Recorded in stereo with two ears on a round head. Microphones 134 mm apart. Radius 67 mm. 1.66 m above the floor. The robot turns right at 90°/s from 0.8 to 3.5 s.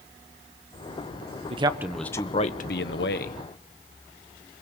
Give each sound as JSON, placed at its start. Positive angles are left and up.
{"t": 1.5, "sound": "a man speaking", "azimuth_deg": -40, "distance_m": 1.1}